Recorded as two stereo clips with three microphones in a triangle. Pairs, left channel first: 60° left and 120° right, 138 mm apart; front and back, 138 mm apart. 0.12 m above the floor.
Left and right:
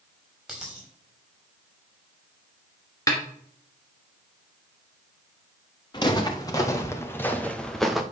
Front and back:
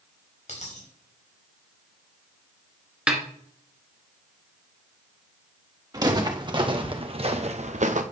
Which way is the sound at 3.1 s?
100° left.